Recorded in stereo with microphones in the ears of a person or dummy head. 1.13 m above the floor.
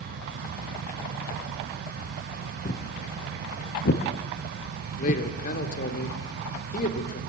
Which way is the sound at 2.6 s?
45° left (ahead or behind).